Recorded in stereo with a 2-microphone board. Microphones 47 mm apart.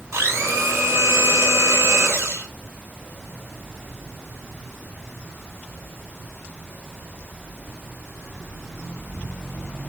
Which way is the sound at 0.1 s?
70° right (ahead or behind).